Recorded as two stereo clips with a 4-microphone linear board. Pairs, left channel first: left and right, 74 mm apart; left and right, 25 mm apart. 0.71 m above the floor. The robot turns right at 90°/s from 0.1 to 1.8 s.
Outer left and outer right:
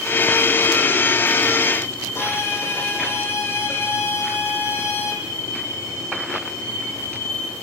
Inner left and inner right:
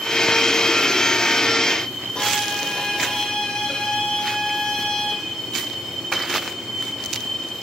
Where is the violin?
35° left (ahead or behind), 6.5 m.